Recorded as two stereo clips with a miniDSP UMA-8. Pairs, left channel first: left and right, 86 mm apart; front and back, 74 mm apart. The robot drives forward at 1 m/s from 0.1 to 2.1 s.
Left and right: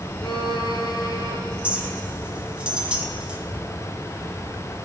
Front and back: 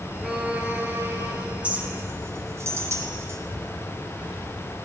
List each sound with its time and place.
0.2 s a violin: 95° left, 1.3 m; by 1.4 s 135° left, 1.9 m
1.6 s a clink: 140° right, 1.0 m; by 3.4 s 165° right, 1.2 m